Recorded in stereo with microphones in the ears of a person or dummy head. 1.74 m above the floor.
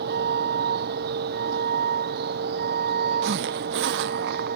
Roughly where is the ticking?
I don't hear ticking.